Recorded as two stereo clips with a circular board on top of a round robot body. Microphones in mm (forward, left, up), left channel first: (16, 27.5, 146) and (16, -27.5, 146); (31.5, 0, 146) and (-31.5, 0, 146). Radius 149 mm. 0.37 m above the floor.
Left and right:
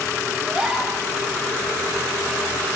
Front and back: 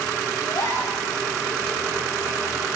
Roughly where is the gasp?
Ahead.